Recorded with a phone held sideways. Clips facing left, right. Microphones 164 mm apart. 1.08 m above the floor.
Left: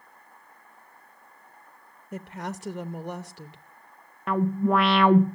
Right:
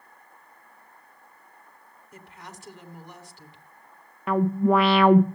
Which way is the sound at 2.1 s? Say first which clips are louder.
Left 11 dB; 70° left (ahead or behind).